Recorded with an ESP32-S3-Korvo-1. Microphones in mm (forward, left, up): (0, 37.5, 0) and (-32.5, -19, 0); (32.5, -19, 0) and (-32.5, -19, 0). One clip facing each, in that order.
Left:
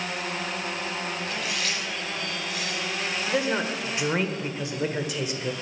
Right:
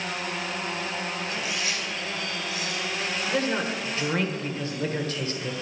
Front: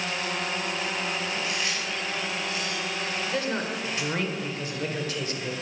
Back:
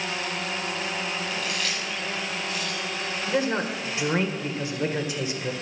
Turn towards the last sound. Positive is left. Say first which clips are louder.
# left 1 dB, back 6 dB
turn(degrees=125)